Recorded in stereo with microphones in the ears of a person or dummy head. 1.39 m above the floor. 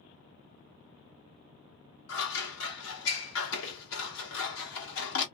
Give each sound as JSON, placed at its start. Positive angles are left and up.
{"t": 2.1, "sound": "scissors", "side_deg": 80, "distance_m": 1.4}